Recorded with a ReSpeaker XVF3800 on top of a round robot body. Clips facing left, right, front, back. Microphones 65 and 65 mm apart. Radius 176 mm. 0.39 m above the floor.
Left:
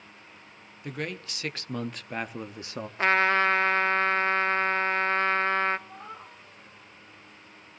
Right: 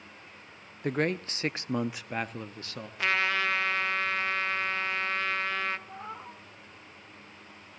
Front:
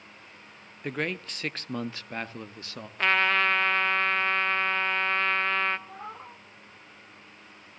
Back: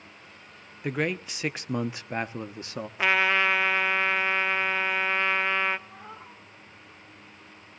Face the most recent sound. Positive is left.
turn(degrees=-25)